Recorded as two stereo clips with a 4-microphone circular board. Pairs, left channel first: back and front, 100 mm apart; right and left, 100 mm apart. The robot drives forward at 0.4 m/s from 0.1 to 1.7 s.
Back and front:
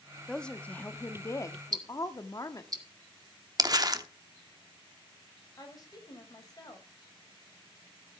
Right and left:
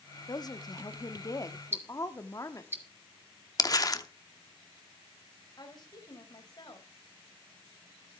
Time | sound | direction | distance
0.3 | a woman speaking | 95° right | 0.9 m
1.7 | ticking | 30° left | 1.7 m
3.6 | crumpling | 45° right | 0.8 m
5.6 | a woman speaking | 130° right | 4 m